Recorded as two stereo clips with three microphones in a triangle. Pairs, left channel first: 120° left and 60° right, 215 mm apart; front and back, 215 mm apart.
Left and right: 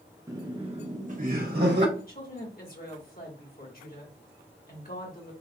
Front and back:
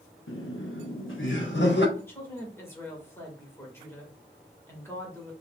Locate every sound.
0.3 s laughter: 15° left, 0.9 m; by 1.9 s 30° right, 1.2 m
2.0 s a woman speaking: 80° left, 1.6 m